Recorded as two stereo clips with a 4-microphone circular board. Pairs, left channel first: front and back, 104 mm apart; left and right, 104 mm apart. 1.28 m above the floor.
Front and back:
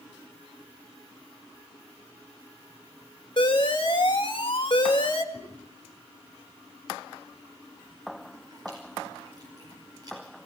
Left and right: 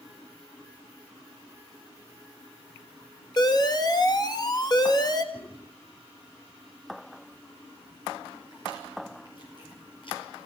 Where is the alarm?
40° left, 2 m.